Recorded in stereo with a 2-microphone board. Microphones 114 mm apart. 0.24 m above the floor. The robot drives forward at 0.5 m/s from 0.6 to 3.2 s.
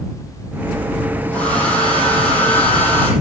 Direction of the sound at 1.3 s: 10° left (ahead or behind).